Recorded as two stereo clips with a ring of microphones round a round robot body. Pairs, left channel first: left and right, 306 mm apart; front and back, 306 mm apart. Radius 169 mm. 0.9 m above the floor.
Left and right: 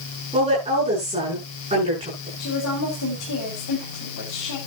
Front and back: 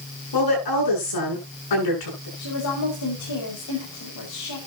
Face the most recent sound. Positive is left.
turn(degrees=45)